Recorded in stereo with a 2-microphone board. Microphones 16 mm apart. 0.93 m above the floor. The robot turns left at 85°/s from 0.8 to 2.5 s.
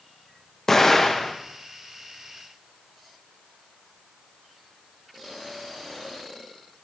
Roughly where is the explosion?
Behind left.